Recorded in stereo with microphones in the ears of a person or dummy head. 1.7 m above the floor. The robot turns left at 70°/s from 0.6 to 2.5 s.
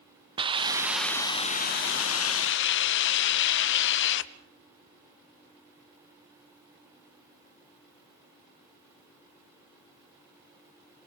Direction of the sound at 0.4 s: 155° right.